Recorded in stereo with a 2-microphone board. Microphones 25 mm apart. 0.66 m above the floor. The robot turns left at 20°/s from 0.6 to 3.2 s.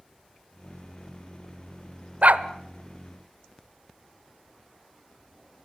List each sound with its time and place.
2.2 s a dog barking: 65° right (ahead or behind), 1.0 m; by 2.5 s 70° right (ahead or behind), 1.0 m